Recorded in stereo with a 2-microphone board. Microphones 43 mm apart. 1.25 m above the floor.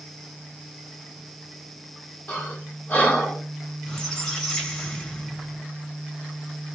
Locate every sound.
2.3 s breathing: 35° left (ahead or behind), 2.0 m
3.8 s a squeak: 15° left (ahead or behind), 1.7 m